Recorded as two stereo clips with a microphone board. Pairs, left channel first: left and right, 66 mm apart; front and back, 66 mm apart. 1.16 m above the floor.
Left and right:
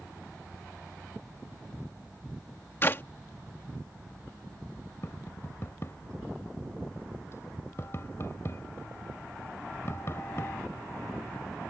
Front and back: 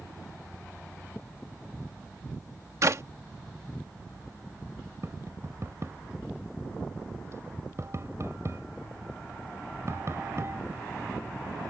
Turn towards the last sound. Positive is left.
turn(degrees=140)